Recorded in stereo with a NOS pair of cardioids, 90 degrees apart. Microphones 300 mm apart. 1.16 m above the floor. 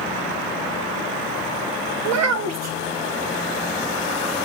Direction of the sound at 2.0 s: 70° right.